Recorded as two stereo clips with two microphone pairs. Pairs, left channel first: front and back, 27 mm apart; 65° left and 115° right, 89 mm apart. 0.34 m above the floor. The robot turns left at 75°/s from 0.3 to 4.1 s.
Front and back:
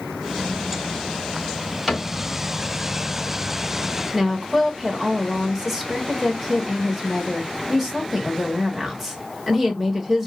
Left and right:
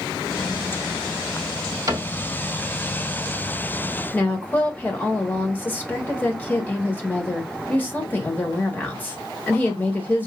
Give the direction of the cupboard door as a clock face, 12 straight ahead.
3 o'clock.